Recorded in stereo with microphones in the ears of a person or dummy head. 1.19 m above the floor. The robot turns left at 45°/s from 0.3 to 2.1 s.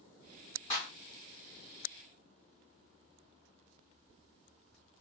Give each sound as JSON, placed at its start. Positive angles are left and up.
{"t": 0.7, "sound": "a clap", "side_deg": 35, "distance_m": 2.0}